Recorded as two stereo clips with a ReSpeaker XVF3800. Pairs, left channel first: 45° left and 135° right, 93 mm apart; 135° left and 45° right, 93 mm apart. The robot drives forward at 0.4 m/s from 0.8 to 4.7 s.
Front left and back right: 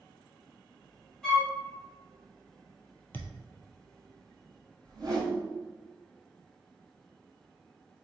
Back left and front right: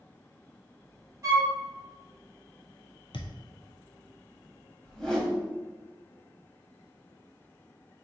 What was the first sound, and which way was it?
A flute, 35° right.